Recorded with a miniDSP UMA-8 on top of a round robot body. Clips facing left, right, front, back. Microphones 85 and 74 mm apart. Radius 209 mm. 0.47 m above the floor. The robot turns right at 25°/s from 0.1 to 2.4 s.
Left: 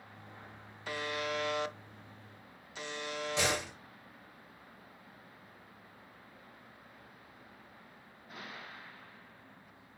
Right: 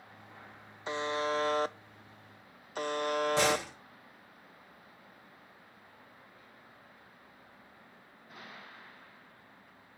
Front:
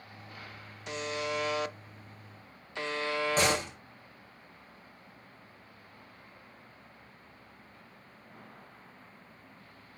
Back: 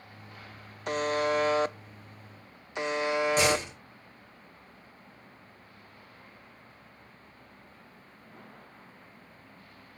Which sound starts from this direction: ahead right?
A door slam, at 3.4 s.